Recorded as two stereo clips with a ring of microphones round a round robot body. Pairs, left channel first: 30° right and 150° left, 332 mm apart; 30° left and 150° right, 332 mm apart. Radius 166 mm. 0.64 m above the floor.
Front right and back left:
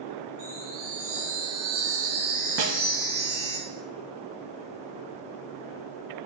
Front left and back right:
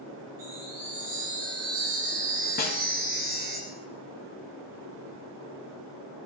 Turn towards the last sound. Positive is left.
turn(degrees=95)